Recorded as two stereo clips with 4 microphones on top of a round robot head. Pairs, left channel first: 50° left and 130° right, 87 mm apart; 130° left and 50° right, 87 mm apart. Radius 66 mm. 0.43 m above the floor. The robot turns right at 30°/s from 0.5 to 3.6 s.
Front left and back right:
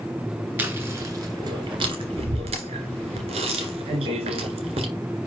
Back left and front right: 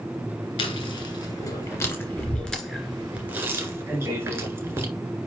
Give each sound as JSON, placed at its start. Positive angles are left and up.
{"t": 0.6, "sound": "chewing", "azimuth_deg": 155, "distance_m": 1.8}